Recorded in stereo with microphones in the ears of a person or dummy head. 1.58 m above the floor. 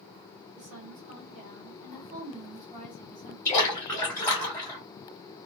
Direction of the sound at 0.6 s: 40° right (ahead or behind).